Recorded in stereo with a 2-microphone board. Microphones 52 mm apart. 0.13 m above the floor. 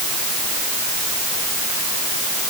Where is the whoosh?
No whoosh in this recording.